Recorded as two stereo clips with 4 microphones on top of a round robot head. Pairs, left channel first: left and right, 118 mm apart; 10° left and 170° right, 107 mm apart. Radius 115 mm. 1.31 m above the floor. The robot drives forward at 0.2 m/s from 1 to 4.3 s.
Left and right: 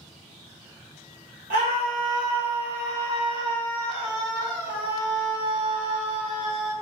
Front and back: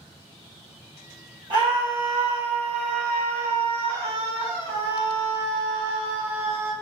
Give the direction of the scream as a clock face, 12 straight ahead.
4 o'clock.